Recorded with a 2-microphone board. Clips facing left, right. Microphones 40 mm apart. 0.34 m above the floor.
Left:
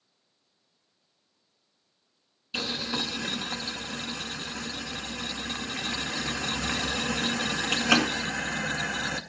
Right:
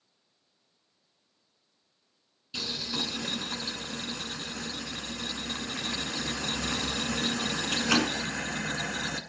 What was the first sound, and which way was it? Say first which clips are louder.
Boiling: left 3 dB; 30° left (ahead or behind).